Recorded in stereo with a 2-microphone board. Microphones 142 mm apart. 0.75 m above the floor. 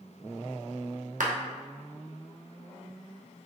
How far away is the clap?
About 0.8 m.